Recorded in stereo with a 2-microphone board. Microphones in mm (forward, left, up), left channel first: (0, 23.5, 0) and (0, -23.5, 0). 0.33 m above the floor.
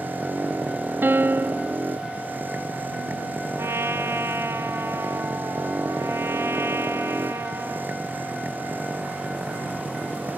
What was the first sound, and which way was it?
A motorcycle, 45° right (ahead or behind).